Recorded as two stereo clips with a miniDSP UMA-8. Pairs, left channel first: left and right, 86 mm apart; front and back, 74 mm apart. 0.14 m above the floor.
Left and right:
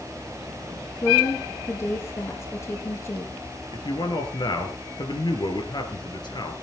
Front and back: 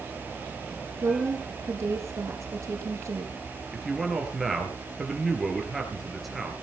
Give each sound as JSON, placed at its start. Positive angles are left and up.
{"t": 1.0, "sound": "a woman speaking", "azimuth_deg": 145, "distance_m": 2.0}
{"t": 3.7, "sound": "a man speaking", "azimuth_deg": 90, "distance_m": 3.0}